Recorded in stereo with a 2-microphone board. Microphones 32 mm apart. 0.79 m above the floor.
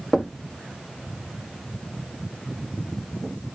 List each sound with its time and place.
0.1 s knocking: 15° left (ahead or behind), 1.3 m